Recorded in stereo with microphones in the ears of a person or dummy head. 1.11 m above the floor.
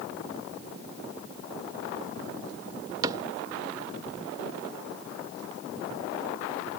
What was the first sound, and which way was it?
A cupboard door, 15° right (ahead or behind).